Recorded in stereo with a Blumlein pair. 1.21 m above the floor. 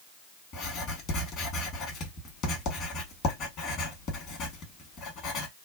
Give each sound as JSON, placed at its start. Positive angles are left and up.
{"t": 0.5, "sound": "writing", "azimuth_deg": 35, "distance_m": 1.2}